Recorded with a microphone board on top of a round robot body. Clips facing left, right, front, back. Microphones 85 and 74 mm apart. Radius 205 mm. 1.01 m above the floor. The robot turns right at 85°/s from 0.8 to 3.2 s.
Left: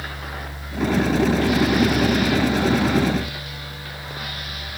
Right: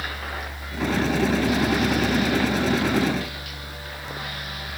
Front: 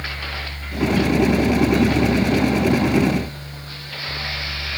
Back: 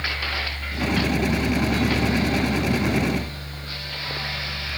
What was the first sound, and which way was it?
Only background noise.